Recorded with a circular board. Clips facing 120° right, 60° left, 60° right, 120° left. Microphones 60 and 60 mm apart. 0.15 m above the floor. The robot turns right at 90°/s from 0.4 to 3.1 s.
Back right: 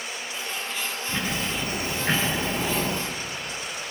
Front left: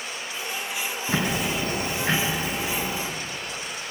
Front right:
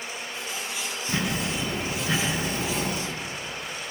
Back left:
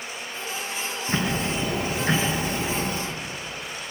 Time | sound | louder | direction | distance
1.1 | ticking | front left 4 dB, back left 2 dB | 60° left | 3.5 m